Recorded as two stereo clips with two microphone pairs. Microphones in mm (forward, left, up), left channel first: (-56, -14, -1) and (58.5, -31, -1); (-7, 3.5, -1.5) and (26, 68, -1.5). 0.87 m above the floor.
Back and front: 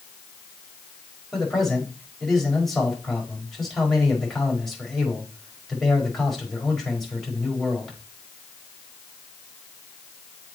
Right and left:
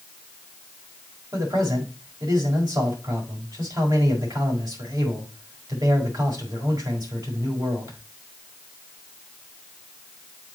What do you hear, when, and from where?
1.3 s a man speaking: 85° left, 5 m